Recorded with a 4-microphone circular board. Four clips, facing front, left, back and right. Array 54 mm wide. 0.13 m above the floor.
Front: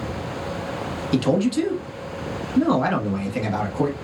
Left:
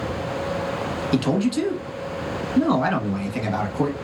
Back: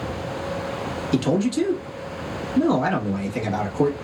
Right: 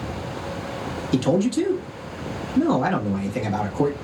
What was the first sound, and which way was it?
A man speaking, 65° left.